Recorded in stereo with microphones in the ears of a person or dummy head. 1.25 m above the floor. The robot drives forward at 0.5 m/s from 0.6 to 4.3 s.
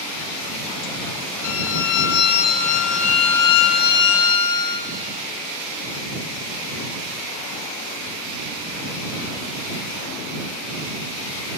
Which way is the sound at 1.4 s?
60° left (ahead or behind).